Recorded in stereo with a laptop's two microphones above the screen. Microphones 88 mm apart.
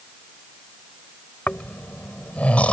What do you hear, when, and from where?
1.5 s snoring: 15° left (ahead or behind)